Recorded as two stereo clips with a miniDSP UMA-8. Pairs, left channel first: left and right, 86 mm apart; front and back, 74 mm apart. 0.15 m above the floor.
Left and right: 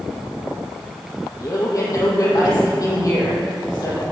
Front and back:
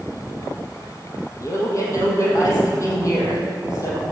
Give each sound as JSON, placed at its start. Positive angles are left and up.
{"t": 1.4, "sound": "a man speaking", "azimuth_deg": 45, "distance_m": 5.0}